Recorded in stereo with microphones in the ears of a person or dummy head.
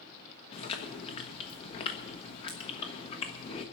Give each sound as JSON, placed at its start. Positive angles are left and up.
{"t": 0.5, "sound": "chewing", "side_deg": 35, "distance_m": 1.3}